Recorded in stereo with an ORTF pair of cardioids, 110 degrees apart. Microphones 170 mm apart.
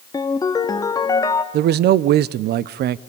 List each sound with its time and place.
0.1 s a ringtone: 20° left, 2.0 m
1.5 s a man speaking: 65° right, 1.0 m